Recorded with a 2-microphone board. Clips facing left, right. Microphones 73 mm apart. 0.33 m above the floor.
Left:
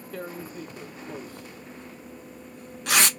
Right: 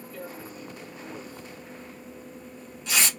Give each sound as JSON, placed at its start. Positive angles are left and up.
{"t": 0.1, "sound": "tearing paper", "side_deg": 65, "distance_m": 0.6}